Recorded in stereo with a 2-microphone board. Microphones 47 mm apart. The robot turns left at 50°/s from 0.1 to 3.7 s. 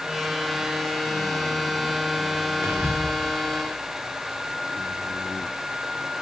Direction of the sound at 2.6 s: 60° right (ahead or behind).